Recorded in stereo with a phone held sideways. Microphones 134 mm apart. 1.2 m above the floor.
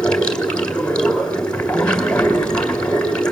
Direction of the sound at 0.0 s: 5° left (ahead or behind).